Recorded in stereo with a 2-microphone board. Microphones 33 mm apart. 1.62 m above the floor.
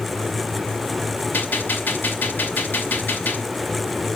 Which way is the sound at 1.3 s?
80° left.